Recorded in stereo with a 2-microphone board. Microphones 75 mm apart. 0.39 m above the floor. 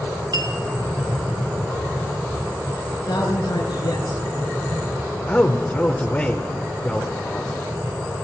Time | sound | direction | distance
0.3 | a clink | 75° right (ahead or behind) | 3 m
2.9 | a man speaking | 75° left (ahead or behind) | 5 m
5.3 | a man speaking | 20° left (ahead or behind) | 1.1 m